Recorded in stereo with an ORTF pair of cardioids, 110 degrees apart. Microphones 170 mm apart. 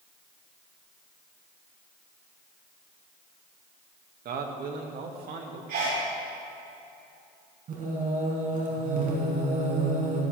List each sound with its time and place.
4.2 s a man speaking: 60° right, 2 m; by 5.6 s 65° right, 3 m
5.7 s a sneeze: 65° right, 4 m
7.7 s singing: 55° right, 5 m